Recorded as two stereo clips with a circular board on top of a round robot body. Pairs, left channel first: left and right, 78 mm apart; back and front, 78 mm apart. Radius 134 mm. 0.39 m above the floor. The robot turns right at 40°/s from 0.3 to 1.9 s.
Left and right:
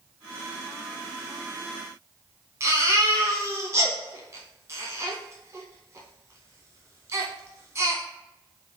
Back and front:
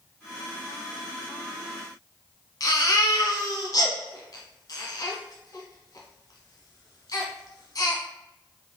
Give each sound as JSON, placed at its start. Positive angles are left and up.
{"t": 2.6, "sound": "a baby crying", "azimuth_deg": -145, "distance_m": 1.4}